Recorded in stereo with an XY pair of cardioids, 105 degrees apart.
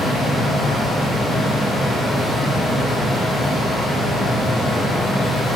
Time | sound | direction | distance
0.0 | a fan | 15° left | 1.2 m